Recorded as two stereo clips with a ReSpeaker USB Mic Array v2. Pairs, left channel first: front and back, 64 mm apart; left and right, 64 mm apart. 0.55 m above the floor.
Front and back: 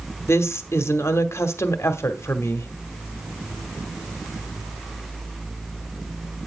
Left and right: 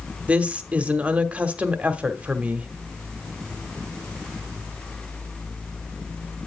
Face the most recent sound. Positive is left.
turn(degrees=-25)